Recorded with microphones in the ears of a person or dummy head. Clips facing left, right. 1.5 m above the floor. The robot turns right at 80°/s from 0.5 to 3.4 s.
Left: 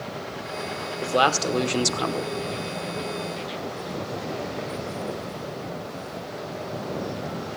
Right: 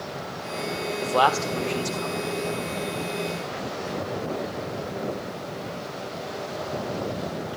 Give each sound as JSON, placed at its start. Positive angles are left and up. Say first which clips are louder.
{"t": 1.0, "sound": "a man speaking", "louder": "left 1 dB", "azimuth_deg": 10, "distance_m": 1.1}